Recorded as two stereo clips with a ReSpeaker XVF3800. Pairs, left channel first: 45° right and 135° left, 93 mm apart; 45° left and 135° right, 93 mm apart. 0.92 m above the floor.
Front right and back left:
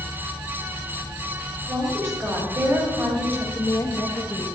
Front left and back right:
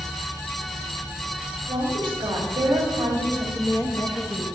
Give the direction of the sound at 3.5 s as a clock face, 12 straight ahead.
12 o'clock.